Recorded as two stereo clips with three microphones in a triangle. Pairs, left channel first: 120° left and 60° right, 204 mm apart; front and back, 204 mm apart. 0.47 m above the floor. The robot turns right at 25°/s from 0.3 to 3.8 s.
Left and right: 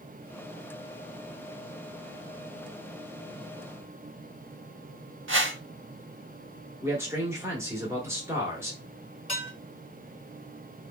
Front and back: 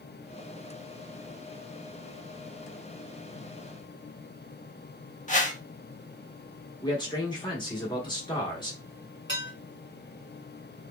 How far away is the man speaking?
About 0.9 m.